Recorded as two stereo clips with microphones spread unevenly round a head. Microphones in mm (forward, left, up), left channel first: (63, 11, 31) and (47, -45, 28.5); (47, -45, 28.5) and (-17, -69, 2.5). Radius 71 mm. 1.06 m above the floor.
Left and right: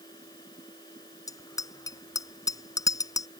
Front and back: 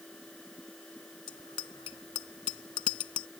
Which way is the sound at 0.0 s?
105° left.